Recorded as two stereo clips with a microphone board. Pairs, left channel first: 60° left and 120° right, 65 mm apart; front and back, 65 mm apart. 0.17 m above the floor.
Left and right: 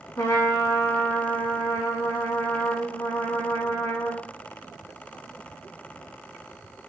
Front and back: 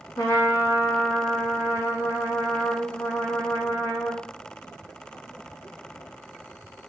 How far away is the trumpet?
About 1.9 m.